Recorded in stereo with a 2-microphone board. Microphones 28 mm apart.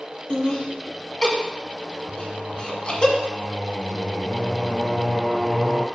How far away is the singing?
About 1.1 m.